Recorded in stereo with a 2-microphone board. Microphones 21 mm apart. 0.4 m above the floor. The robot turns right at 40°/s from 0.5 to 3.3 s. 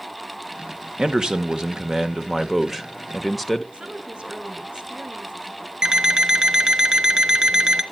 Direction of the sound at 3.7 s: 50° right (ahead or behind).